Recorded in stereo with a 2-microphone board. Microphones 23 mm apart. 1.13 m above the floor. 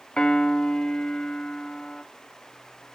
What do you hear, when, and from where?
0.2 s a piano: 35° left (ahead or behind), 0.9 m